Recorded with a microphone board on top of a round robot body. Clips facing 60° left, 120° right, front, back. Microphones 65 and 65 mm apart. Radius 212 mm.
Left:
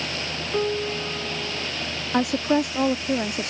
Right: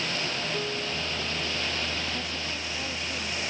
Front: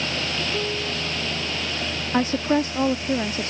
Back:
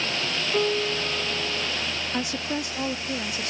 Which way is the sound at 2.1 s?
55° left.